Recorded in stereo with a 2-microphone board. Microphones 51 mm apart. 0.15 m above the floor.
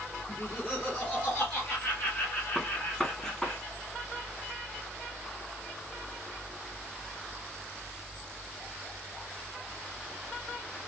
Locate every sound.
0.3 s laughter: 20° left (ahead or behind), 1.5 m; by 3.5 s 30° left (ahead or behind), 4.5 m
2.5 s a gunshot: 10° left (ahead or behind), 1.0 m